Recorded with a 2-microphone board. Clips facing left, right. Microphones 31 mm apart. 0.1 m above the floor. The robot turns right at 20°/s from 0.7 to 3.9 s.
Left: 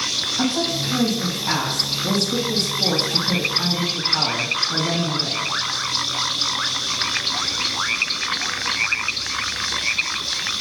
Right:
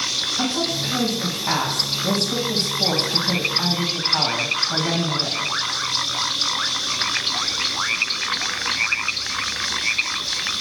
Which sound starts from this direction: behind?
A woman speaking, at 0.4 s.